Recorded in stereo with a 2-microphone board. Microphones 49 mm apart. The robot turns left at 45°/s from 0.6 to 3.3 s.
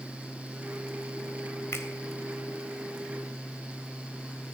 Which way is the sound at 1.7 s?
75° left (ahead or behind).